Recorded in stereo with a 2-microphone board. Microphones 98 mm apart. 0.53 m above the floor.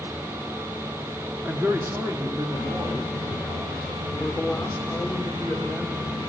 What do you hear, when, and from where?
1.4 s a man speaking: 15° right (ahead or behind), 0.9 m; by 5.2 s 50° right (ahead or behind), 2 m
4.2 s a woman speaking: 5° right (ahead or behind), 1.4 m